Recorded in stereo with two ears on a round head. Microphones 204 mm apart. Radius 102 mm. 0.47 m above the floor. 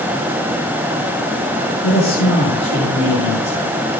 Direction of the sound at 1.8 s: 55° left (ahead or behind).